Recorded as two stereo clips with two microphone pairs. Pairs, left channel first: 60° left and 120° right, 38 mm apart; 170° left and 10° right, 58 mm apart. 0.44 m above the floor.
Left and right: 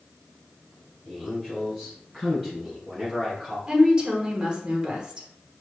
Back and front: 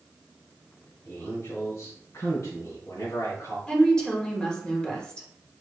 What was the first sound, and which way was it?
A man speaking, 165° left.